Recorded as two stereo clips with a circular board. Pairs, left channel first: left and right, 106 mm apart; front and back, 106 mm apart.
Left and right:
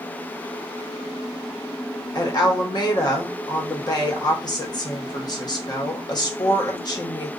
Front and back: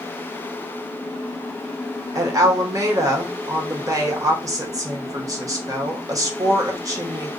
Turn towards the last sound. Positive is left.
turn(degrees=130)